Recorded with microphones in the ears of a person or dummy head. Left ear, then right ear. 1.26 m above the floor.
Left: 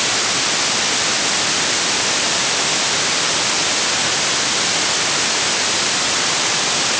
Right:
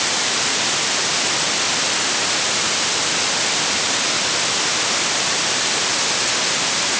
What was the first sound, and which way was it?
Only background noise.